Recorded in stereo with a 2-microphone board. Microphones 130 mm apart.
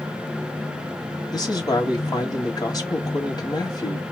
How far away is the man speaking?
About 1.9 m.